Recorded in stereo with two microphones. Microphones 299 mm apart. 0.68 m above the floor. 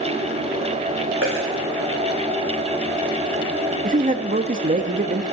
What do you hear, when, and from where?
1.2 s a dropped coin: 45° right (ahead or behind), 4 m
3.8 s a man speaking: 30° right (ahead or behind), 0.6 m